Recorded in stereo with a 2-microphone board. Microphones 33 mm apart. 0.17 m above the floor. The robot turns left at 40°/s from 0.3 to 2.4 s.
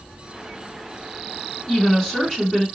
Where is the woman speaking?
25° left (ahead or behind), 1.6 m; by 2.6 s 10° left (ahead or behind), 1.6 m.